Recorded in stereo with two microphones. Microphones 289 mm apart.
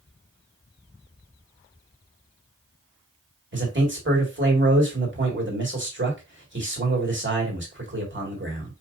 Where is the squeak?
I don't hear a squeak.